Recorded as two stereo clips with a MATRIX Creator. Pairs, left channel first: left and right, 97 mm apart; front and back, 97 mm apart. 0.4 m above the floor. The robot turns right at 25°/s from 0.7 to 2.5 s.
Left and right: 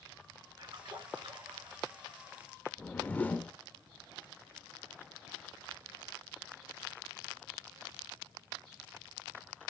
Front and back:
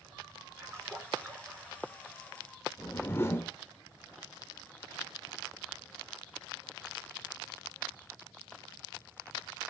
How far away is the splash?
About 5 m.